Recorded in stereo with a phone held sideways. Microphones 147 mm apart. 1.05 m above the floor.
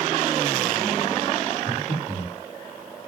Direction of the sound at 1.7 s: 55° left (ahead or behind).